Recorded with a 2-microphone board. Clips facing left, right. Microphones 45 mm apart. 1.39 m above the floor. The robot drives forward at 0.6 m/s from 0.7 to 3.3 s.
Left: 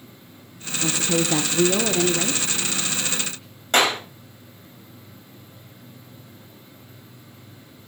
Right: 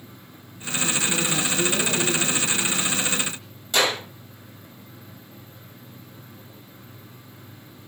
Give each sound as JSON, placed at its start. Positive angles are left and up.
{"t": 0.8, "sound": "a woman speaking", "side_deg": 75, "distance_m": 1.2}
{"t": 3.7, "sound": "a clap", "side_deg": 50, "distance_m": 6.5}